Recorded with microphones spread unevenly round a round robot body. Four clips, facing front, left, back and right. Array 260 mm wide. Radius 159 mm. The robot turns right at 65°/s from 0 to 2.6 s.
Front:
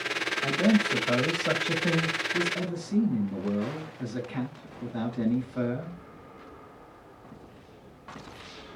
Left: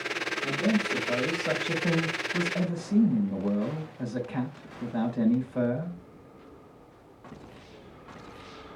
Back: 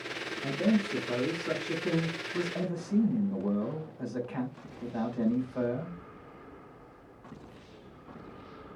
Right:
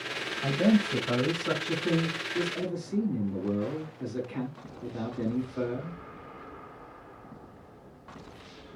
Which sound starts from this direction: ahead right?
A man speaking, at 0.4 s.